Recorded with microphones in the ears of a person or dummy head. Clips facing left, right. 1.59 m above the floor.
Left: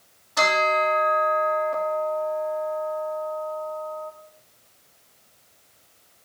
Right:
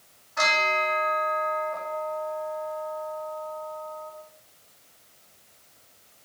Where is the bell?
50° left (ahead or behind), 3.5 m.